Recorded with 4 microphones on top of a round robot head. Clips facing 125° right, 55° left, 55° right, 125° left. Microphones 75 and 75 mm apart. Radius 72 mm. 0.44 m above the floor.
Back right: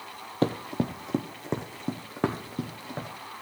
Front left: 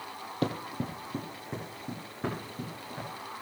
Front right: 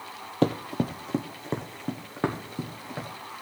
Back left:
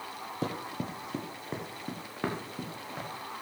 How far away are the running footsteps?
About 0.5 m.